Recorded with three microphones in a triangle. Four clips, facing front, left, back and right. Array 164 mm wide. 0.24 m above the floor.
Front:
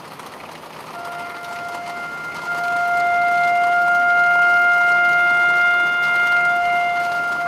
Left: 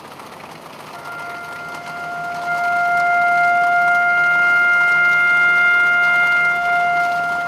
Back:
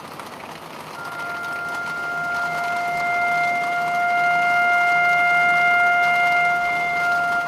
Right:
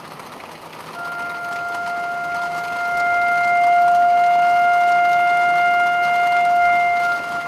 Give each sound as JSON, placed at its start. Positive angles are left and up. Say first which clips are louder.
{"t": 0.9, "sound": "a flute", "louder": "right 3 dB, even", "azimuth_deg": 50, "distance_m": 2.0}